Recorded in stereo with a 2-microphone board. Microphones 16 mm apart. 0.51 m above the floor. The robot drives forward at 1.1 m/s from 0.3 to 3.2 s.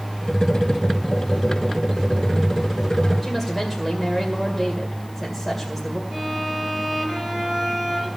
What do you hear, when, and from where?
3.2 s a woman speaking: 5° right (ahead or behind), 2 m
6.1 s a violin: 30° right (ahead or behind), 7 m